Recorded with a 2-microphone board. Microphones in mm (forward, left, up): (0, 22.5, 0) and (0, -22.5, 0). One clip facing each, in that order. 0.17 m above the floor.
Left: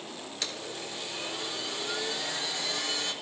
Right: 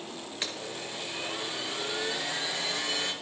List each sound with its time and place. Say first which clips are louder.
0.4 s a blender: right 1 dB; 25° right (ahead or behind), 3 m